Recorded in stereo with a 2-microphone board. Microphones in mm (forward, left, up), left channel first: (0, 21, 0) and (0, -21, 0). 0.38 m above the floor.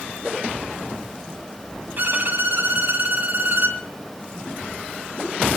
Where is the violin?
45° right (ahead or behind), 2 m.